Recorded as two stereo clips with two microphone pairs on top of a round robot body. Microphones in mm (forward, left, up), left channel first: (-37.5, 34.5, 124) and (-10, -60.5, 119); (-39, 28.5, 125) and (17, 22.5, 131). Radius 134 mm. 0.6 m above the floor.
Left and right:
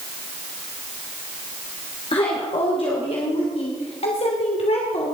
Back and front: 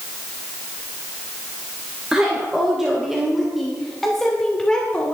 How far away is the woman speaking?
About 3 m.